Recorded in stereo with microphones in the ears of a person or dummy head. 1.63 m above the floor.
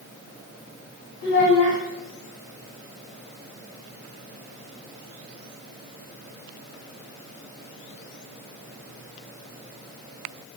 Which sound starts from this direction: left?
A child speaking, at 1.2 s.